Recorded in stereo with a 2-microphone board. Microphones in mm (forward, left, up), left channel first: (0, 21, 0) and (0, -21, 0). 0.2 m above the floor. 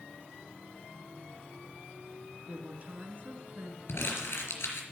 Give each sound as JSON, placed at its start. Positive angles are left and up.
{"t": 2.5, "sound": "a woman speaking", "side_deg": -35, "distance_m": 1.7}
{"t": 3.9, "sound": "crumpling", "side_deg": 70, "distance_m": 4.0}